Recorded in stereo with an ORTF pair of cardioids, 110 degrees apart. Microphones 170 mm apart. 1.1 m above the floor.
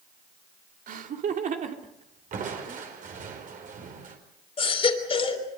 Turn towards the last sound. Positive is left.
turn(degrees=35)